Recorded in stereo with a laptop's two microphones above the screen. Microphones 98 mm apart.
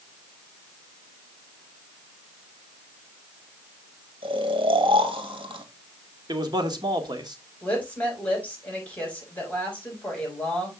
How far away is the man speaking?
About 1.9 m.